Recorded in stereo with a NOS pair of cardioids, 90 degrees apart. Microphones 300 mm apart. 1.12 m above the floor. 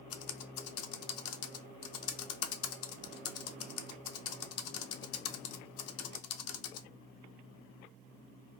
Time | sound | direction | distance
0.1 | typing on a keyboard | 55° left | 0.5 m